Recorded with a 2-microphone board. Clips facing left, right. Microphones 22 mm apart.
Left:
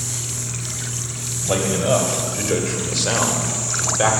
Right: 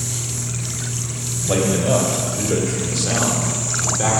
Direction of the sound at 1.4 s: 5° left (ahead or behind).